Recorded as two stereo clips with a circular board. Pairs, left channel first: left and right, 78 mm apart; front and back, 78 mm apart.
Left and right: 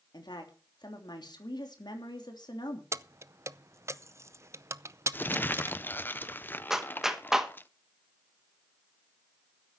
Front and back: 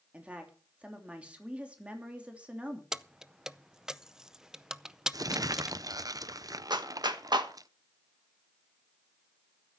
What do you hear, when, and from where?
0.1 s a woman speaking: 105° left, 3 m
2.9 s keys jangling: 100° right, 0.6 m
5.1 s crumpling: 150° left, 0.6 m
6.7 s a clap: 175° right, 1.3 m